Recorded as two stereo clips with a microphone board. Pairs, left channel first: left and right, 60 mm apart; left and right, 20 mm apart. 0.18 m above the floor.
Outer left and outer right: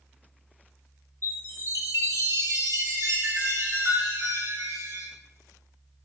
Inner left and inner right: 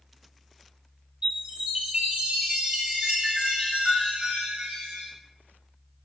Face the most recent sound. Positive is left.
turn(degrees=-65)  # may be behind; listen again after turning